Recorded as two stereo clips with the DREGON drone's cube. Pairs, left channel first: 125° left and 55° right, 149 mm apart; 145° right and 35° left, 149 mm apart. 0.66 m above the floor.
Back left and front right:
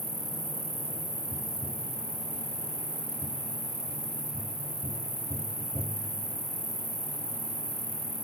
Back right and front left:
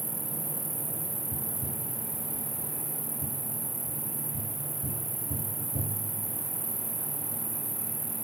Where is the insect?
55° right.